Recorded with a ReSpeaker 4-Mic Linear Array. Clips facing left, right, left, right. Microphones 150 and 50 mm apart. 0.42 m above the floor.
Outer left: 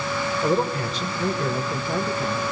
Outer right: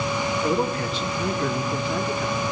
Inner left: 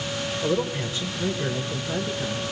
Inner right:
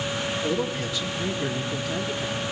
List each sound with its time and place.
0.4 s a man speaking: 35° left (ahead or behind), 1.4 m; by 2.4 s 45° left (ahead or behind), 1.5 m